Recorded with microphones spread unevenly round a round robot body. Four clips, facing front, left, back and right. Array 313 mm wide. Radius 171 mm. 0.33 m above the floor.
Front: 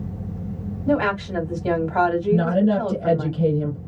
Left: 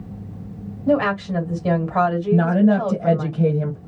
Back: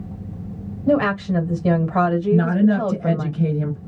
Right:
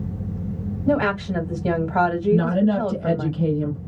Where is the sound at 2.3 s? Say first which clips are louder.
Left 5 dB, back 3 dB; 60° left, 1.6 m.